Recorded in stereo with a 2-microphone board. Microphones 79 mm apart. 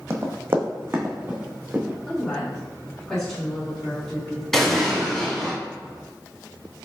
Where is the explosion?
10° left (ahead or behind), 1.4 m.